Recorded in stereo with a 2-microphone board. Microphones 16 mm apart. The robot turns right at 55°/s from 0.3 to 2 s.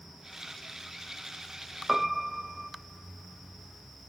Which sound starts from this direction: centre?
A piano, at 1.9 s.